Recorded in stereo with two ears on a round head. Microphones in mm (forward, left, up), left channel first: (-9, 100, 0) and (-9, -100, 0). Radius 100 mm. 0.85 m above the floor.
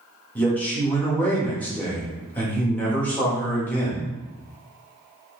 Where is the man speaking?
10° left (ahead or behind), 1.1 m.